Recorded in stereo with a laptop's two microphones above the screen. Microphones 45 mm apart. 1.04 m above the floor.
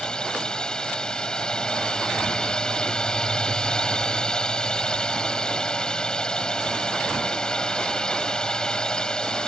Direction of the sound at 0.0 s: 20° left (ahead or behind).